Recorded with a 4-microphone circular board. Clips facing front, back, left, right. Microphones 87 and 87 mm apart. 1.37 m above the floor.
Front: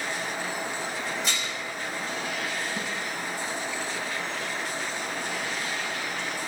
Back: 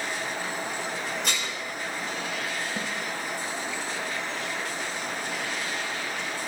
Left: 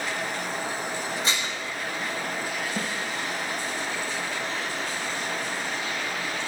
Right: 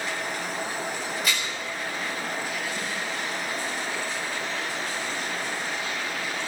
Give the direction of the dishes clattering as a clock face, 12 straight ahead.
7 o'clock.